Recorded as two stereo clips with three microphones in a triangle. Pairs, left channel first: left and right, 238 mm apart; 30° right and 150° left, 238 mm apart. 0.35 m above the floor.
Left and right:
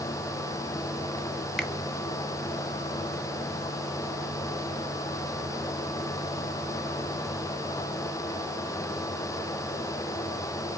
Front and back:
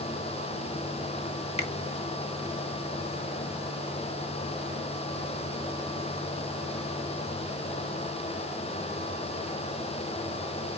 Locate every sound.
1.6 s a finger snap: 5° left, 0.9 m